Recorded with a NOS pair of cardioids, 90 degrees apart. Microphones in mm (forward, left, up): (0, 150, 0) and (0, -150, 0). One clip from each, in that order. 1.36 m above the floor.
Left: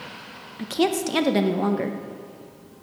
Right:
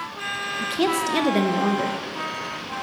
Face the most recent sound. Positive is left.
turn(degrees=5)